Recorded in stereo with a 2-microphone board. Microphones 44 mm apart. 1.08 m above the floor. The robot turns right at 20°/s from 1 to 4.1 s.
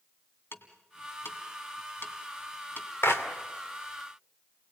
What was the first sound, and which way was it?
Ticking, 70° left (ahead or behind).